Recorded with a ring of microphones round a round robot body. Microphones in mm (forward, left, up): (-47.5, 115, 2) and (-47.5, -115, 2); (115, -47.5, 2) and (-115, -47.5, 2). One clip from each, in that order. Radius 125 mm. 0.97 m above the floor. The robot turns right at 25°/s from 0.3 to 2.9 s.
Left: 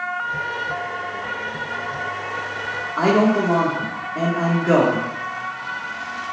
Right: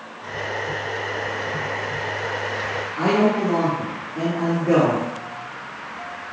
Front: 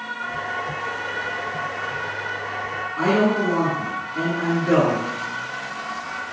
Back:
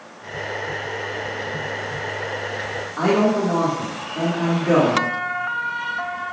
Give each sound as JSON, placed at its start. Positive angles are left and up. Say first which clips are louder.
{"t": 3.0, "sound": "a man speaking", "louder": "left 2 dB, back 1 dB", "azimuth_deg": 105, "distance_m": 1.8}